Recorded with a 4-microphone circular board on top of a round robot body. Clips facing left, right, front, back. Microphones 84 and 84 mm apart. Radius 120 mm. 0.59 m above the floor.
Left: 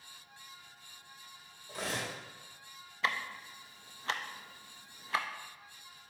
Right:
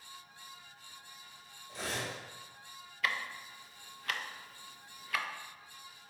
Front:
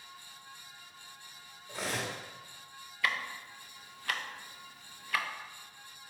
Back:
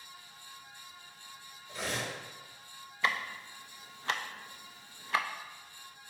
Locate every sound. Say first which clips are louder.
1.7 s cutlery clinking: left 1 dB, even; 55° left, 1.3 m
3.0 s ticking: left 1 dB, back 1 dB; 135° left, 0.5 m